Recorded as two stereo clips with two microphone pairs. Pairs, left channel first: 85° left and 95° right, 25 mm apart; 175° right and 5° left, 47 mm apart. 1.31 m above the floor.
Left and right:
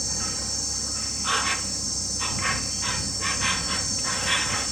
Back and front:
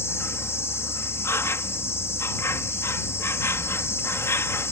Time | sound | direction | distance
0.0 | an insect | 165° left | ?